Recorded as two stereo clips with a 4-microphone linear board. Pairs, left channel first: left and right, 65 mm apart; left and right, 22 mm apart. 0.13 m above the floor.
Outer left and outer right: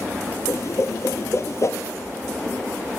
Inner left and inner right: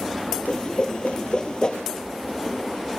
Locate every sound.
0.5 s a whoosh: 50° left (ahead or behind), 0.6 m